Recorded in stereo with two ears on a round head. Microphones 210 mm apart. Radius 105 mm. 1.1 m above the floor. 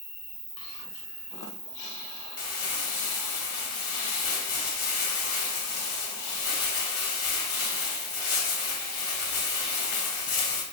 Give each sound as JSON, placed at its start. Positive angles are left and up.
{"t": 0.0, "sound": "an insect", "side_deg": -20, "distance_m": 0.8}
{"t": 2.4, "sound": "crumpling", "side_deg": 65, "distance_m": 1.3}